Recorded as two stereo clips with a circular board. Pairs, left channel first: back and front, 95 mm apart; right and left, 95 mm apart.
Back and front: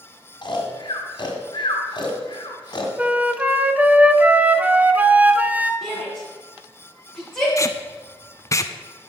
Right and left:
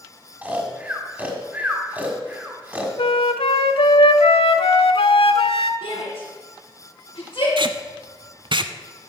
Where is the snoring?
160° left, 1.9 m.